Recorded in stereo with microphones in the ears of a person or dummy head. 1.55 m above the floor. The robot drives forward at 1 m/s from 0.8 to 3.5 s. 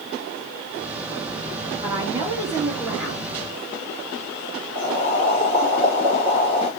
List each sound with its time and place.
1.8 s a woman speaking: 20° right (ahead or behind), 1.9 m; by 3.2 s 10° right (ahead or behind), 3.5 m
4.8 s boiling: 15° right (ahead or behind), 2.5 m